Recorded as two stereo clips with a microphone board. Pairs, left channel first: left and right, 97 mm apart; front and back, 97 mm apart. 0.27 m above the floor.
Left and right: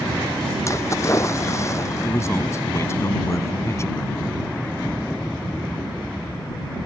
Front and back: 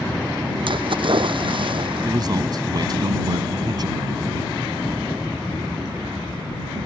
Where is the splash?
150° left.